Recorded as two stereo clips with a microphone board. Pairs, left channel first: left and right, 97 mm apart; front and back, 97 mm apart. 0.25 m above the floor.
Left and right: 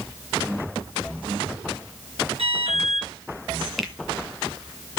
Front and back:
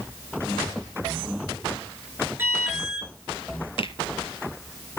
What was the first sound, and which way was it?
An alarm, 110° right.